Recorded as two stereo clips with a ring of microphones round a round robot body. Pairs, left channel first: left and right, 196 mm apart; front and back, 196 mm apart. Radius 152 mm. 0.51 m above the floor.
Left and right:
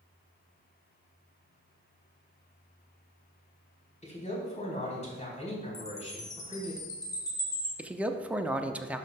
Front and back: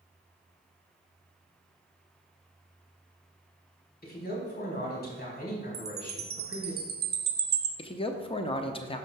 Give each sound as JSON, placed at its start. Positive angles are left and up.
{"t": 4.0, "sound": "a man speaking", "azimuth_deg": 35, "distance_m": 4.0}
{"t": 5.7, "sound": "a chime", "azimuth_deg": 160, "distance_m": 0.8}
{"t": 7.8, "sound": "a man speaking", "azimuth_deg": -15, "distance_m": 0.7}